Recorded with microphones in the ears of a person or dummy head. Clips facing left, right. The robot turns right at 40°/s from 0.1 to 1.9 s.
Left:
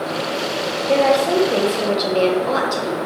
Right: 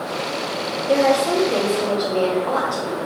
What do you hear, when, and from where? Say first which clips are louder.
0.9 s a woman speaking: left 1 dB; 15° right, 0.7 m; by 3.0 s 25° left, 0.7 m